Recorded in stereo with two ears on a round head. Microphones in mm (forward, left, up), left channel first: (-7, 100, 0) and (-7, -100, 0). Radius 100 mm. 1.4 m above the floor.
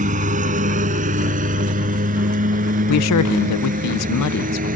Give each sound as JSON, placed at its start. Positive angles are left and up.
{"t": 0.0, "sound": "a lawn mower", "side_deg": -35}
{"t": 2.9, "sound": "a man speaking", "side_deg": 80}